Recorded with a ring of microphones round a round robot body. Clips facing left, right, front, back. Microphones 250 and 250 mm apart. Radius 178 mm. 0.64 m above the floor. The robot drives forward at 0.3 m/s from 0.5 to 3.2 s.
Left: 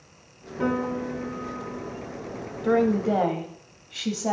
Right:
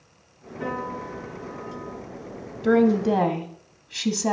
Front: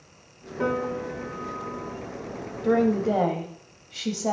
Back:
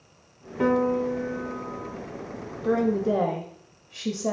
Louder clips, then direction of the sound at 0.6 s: Left 6 dB, back 5 dB; 135° left.